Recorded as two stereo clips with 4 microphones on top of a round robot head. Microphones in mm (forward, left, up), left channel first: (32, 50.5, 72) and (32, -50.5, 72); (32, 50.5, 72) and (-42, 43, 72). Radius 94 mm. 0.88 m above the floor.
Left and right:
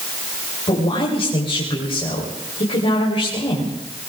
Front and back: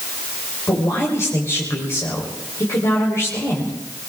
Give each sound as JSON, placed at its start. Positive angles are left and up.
{"t": 0.7, "sound": "a man speaking", "azimuth_deg": 55, "distance_m": 3.5}